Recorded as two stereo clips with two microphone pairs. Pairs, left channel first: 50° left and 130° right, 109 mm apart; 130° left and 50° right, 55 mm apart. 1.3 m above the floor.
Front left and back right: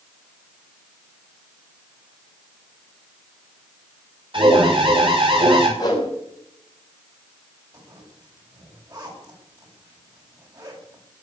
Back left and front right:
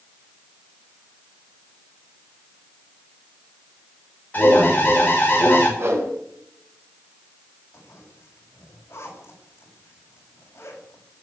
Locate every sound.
4.3 s an alarm: 170° right, 6.5 m
5.8 s a whoosh: 5° right, 6 m
7.7 s a zipper: 175° left, 8 m